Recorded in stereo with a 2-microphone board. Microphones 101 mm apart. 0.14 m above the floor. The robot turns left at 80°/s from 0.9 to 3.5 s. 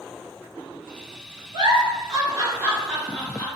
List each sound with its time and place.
1.5 s a giggle: 45° right (ahead or behind), 1.3 m; by 3.5 s 30° left (ahead or behind), 1.3 m